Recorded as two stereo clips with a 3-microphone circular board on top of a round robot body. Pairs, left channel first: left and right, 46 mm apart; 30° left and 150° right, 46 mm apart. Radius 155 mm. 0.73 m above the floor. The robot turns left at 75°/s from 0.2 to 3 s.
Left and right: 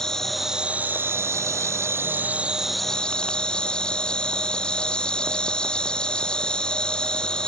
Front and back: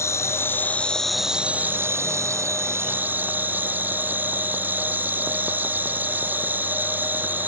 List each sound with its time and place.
0.0 s an insect: 10° left; by 7.5 s 160° left